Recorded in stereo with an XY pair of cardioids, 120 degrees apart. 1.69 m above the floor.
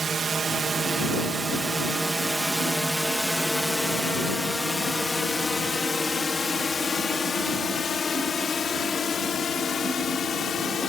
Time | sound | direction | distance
0.0 | a drone | 35° right | ?